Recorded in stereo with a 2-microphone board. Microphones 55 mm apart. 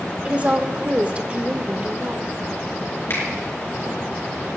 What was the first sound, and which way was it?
A woman speaking, 25° right (ahead or behind).